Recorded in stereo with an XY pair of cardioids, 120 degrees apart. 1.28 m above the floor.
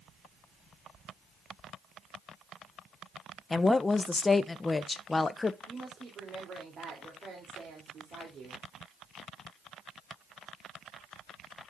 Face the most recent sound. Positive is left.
turn(degrees=-45)